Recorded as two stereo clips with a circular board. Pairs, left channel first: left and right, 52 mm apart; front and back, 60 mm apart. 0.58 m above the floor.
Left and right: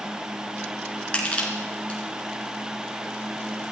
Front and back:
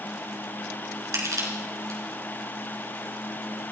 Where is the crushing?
155° left, 4 m.